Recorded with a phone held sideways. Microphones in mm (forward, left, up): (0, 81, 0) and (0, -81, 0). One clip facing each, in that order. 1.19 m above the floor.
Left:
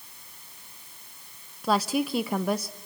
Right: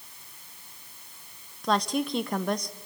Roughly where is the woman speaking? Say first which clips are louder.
Left 1 dB; centre.